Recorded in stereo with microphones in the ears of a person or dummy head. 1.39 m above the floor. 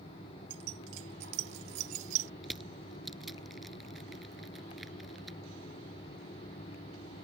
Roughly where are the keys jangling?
Right.